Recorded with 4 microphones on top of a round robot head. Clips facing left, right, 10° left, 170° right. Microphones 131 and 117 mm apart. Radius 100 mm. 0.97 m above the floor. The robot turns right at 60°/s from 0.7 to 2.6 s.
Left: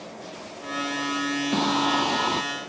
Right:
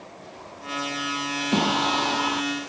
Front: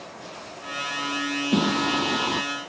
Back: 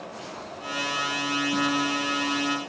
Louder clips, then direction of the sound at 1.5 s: Right 1 dB, front 5 dB; 15° right.